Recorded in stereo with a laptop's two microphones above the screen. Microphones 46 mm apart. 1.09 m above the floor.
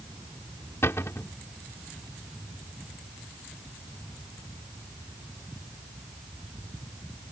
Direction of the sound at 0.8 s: 70° left (ahead or behind).